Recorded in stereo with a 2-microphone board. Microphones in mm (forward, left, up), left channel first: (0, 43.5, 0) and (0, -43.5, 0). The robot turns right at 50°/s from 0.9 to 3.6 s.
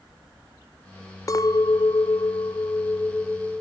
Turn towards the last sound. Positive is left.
turn(degrees=175)